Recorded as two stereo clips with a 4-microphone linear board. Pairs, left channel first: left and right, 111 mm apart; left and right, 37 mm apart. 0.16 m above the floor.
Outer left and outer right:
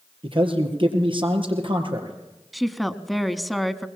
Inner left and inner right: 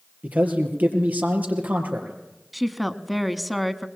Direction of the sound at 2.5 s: Centre (ahead or behind).